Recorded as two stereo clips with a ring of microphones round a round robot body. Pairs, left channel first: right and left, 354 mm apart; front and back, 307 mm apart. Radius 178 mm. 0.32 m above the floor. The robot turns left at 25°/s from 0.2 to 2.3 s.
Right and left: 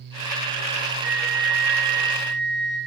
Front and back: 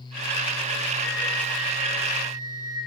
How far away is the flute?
About 9.5 m.